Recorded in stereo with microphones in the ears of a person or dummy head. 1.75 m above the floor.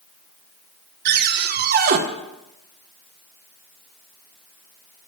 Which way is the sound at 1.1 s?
55° right (ahead or behind).